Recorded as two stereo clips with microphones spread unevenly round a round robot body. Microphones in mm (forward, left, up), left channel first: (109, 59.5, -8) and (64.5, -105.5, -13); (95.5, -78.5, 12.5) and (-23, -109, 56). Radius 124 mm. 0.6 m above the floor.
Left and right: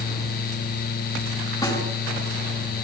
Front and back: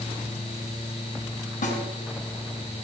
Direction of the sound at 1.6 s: 5° left.